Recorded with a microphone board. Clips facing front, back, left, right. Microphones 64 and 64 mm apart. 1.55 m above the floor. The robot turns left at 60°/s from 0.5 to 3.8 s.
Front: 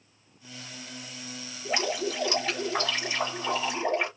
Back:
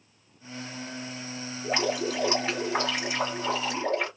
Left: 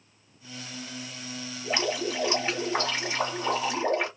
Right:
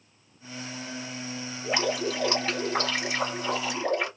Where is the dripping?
165° right, 1.6 m; by 4.1 s 65° left, 1.6 m.